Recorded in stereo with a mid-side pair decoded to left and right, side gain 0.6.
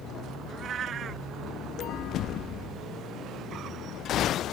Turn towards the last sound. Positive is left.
turn(degrees=-45)